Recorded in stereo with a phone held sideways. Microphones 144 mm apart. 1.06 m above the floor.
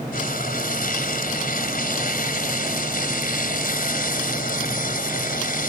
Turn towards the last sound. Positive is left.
turn(degrees=90)